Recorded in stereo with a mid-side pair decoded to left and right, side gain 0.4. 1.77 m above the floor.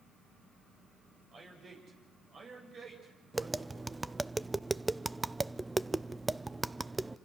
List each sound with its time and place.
1.3 s a man speaking: 55° right, 8.5 m
3.3 s tapping: 15° right, 0.6 m